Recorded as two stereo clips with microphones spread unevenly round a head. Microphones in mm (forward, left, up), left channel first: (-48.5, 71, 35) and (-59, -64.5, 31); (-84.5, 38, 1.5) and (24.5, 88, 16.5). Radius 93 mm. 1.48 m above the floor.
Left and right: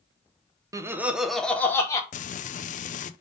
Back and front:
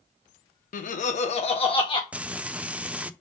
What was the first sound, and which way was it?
Laughter, 160° right.